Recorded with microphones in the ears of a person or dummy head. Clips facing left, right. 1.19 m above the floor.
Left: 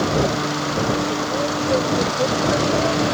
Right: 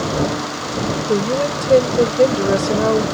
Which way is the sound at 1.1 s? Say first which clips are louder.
Right 5 dB; 70° right (ahead or behind).